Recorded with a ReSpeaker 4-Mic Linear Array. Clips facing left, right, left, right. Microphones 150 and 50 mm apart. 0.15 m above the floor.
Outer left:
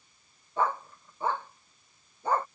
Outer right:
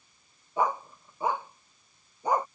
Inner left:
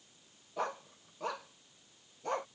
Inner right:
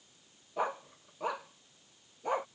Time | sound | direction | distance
0.6 | a dog barking | 15° right (ahead or behind) | ?